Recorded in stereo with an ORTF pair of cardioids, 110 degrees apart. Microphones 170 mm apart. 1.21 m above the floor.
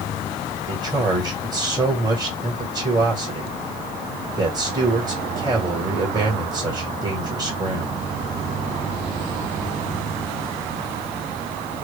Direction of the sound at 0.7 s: 20° right.